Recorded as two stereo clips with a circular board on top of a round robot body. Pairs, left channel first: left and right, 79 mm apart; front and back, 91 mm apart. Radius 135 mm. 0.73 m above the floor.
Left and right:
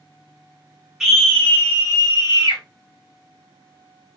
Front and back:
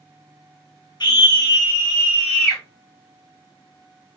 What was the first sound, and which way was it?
A scream, 5° right.